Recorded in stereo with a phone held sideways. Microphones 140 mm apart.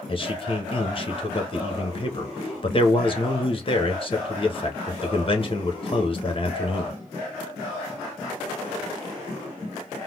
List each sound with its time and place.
0.1 s a man speaking: 40° left (ahead or behind), 1.2 m